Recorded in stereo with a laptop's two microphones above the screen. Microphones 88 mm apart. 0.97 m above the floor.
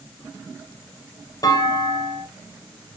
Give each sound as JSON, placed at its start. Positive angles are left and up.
{"t": 1.4, "sound": "a clunk", "side_deg": 45, "distance_m": 0.5}